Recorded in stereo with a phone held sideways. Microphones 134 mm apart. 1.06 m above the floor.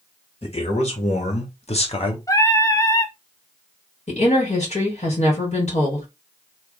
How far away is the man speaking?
About 1.7 m.